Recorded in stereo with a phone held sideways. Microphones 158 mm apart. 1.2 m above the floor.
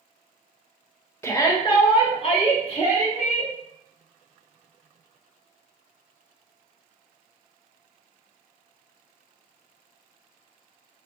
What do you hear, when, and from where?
1.2 s a shout: 15° left (ahead or behind), 0.5 m; by 3.5 s 45° left (ahead or behind), 1.7 m